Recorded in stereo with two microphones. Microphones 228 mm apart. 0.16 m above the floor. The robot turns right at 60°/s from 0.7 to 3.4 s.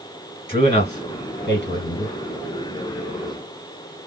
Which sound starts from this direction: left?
A man speaking, at 0.5 s.